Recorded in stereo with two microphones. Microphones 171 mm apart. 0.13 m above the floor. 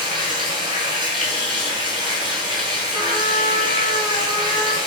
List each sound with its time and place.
0.0 s running water: 30° right (ahead or behind), 1.2 m
2.9 s a trumpet: 30° right (ahead or behind), 0.6 m